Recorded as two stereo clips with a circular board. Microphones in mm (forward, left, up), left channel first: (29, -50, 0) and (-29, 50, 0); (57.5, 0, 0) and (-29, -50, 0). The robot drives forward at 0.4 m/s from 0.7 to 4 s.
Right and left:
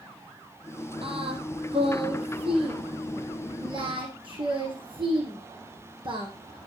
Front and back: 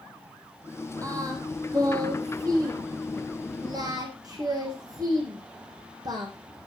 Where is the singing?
155° left, 2.5 m; by 6.3 s 165° left, 3.5 m.